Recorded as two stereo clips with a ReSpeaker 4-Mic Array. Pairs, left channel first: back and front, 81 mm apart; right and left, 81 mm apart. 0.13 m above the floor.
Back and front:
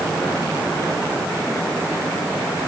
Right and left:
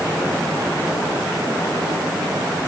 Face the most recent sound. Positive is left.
No sound to turn to.